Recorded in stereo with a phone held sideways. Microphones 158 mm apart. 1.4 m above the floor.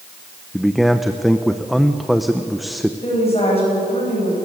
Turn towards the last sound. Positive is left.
turn(degrees=40)  # may be behind; listen again after turning